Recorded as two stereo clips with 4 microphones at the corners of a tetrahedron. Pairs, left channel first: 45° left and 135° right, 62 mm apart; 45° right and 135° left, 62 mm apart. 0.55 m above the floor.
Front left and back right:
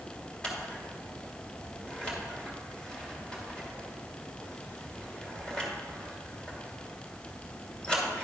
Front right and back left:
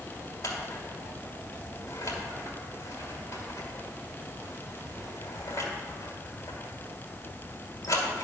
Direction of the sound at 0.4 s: 30° right.